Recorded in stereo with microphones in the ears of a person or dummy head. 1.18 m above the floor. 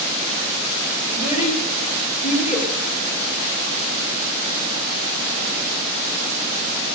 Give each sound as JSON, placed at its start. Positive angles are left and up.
{"t": 1.1, "sound": "a child speaking", "side_deg": 45, "distance_m": 2.0}